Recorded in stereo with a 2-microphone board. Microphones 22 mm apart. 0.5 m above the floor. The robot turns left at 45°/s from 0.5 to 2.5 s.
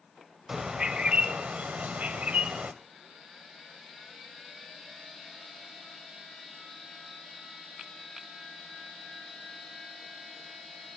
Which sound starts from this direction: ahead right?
A bird, at 0.5 s.